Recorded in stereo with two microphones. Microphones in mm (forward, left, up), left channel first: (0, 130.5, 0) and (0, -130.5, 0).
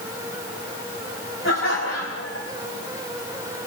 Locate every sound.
1.4 s laughter: 55° left (ahead or behind), 4 m